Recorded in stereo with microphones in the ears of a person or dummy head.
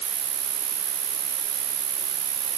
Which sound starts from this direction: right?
An insect, at 0.0 s.